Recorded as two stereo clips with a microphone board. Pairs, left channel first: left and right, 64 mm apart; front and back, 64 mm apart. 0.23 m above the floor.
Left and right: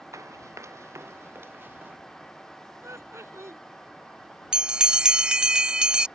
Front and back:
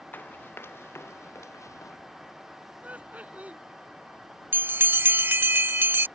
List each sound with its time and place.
0.1 s running footsteps: 55° right; by 2.0 s 30° right
2.8 s laughter: 120° right
4.5 s a bell: 160° right